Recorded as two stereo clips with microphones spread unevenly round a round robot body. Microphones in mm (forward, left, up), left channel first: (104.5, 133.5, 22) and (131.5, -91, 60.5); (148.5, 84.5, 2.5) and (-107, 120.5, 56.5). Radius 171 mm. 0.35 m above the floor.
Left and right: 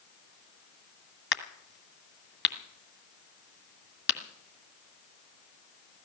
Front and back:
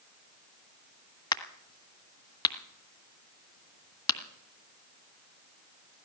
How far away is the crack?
About 1.7 m.